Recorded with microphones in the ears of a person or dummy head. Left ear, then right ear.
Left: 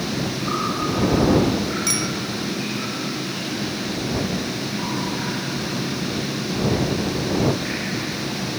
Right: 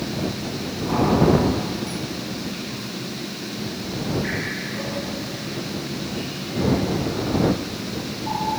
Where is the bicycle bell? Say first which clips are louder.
Left 8 dB; 70° left (ahead or behind).